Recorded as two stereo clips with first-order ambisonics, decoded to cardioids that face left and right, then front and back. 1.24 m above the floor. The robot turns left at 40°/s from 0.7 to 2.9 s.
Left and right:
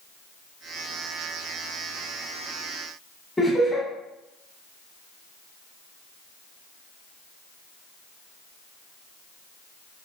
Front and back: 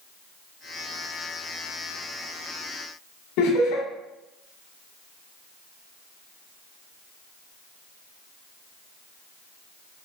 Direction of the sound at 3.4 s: 5° left.